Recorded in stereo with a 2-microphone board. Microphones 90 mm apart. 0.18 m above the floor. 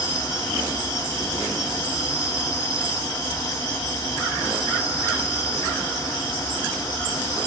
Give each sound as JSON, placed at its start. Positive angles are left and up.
{"t": 0.0, "sound": "an insect", "side_deg": 35, "distance_m": 0.8}